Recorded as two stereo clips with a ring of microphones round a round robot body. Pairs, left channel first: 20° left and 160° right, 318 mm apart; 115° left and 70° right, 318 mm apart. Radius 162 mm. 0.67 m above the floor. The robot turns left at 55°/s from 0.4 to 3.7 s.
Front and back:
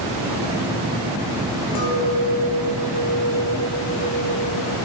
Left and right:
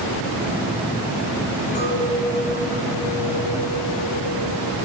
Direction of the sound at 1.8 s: 45° left.